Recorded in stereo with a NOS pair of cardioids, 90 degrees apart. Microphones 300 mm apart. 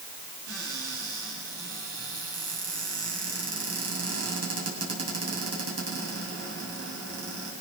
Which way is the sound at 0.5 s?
55° right.